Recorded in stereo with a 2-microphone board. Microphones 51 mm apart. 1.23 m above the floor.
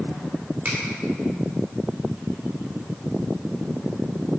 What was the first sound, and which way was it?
A finger snap, 35° right (ahead or behind).